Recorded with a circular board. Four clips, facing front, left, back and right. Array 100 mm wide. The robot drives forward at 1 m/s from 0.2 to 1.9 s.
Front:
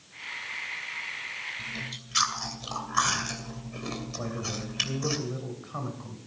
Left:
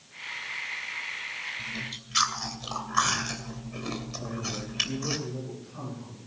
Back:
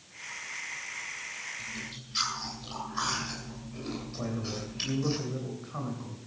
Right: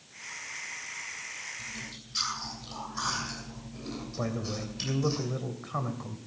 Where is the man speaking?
80° right, 3 m.